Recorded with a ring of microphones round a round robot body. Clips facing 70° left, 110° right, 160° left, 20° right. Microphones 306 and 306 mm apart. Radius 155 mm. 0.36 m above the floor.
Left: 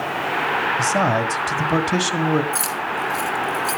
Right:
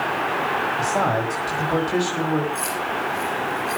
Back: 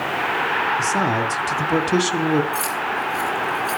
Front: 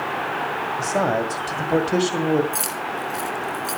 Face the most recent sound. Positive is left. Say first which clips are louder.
# right 1 dB, back 2 dB
turn(degrees=45)